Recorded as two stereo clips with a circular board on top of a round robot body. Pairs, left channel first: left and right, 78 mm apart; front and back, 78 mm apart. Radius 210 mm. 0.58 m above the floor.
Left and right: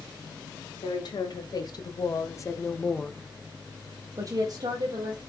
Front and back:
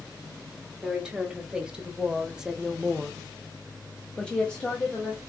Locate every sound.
0.8 s a woman speaking: 105° left, 1.4 m; by 5.2 s 75° right, 1.2 m